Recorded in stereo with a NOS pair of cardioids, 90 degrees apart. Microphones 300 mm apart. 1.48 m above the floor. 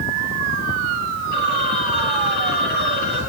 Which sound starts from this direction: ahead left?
A phone ringing, at 1.3 s.